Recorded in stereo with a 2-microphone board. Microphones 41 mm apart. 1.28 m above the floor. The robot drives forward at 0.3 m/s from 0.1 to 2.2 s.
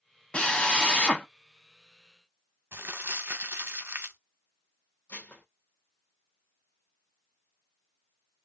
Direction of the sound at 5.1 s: 50° left (ahead or behind).